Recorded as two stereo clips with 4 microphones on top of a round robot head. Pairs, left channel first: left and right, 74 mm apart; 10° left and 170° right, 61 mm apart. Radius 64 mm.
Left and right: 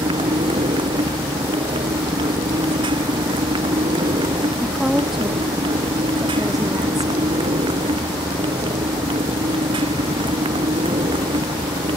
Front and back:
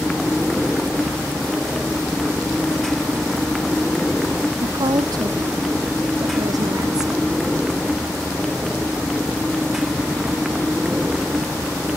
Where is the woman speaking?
175° right.